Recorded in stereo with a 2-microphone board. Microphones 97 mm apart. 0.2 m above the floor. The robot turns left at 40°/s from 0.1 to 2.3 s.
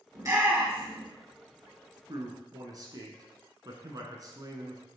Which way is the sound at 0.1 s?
40° right (ahead or behind).